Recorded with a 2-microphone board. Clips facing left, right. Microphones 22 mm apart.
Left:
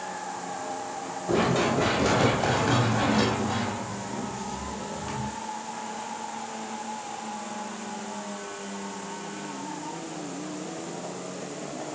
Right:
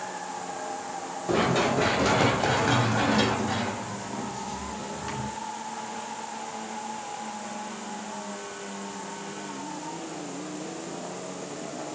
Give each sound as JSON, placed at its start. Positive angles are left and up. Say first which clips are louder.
{"t": 1.3, "sound": "running footsteps", "louder": "even", "side_deg": -20, "distance_m": 6.5}